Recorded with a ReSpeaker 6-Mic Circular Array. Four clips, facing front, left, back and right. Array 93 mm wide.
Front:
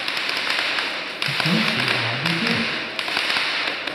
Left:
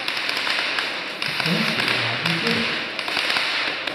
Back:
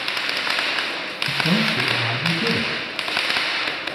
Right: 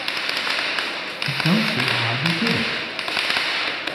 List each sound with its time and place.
1.2 s a man speaking: 85° right, 1.6 m